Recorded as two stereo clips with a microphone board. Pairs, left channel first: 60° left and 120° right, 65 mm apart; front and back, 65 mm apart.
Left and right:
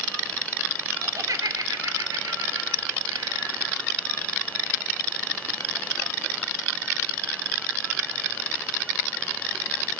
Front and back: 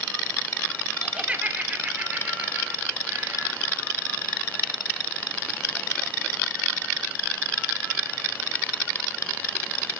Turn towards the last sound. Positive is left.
turn(degrees=-130)